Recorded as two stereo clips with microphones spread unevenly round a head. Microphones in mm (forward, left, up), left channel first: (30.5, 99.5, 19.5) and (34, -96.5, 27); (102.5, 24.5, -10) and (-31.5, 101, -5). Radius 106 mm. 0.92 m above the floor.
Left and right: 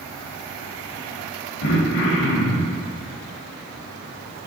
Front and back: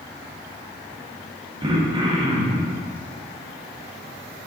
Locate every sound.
1.6 s throat clearing: 95° left, 1.2 m